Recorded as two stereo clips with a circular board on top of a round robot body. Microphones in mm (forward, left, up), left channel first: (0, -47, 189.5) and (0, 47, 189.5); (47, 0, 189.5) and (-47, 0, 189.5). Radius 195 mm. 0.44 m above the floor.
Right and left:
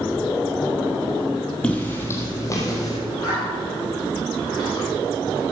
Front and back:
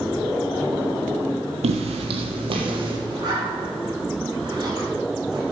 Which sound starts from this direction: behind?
Footsteps, at 1.6 s.